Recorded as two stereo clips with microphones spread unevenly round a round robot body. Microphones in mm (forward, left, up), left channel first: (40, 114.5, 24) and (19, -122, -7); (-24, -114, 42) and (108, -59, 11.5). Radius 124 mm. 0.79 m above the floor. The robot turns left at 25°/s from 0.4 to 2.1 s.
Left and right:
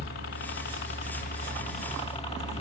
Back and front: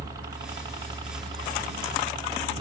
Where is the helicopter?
65° left; by 2.6 s 25° left.